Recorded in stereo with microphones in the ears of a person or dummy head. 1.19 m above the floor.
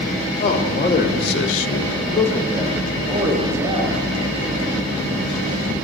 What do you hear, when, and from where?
0.4 s a man speaking: 45° left (ahead or behind), 2 m; by 4.0 s 20° right (ahead or behind), 3 m